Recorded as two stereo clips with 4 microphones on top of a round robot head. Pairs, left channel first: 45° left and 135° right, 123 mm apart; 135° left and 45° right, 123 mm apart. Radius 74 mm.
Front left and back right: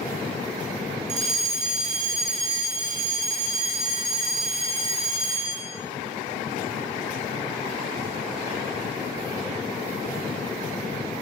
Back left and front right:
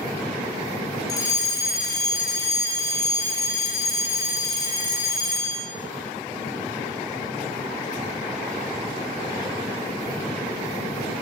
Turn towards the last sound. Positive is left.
turn(degrees=-165)